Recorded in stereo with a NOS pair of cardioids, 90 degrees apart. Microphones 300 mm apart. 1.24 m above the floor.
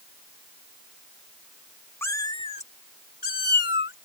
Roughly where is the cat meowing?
Ahead.